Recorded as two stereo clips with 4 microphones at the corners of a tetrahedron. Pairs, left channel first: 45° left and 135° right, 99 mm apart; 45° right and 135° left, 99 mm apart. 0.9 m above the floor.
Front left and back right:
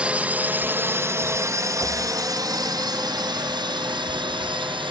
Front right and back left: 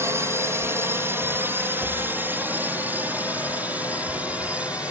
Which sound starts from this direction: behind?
A drone, at 0.0 s.